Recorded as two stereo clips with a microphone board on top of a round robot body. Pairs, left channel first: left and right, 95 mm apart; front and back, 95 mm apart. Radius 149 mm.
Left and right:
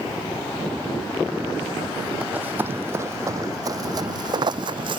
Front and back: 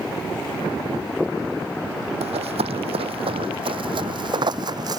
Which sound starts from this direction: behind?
Running footsteps, at 2.2 s.